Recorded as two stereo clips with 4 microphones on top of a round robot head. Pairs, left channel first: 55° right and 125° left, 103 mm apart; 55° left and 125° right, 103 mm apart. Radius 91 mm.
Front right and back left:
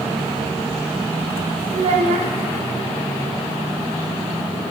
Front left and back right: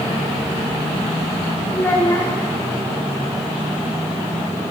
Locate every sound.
1.7 s a child speaking: 120° left, 0.8 m